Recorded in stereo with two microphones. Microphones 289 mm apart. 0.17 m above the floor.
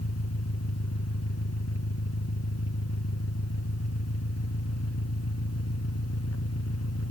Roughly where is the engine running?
Left.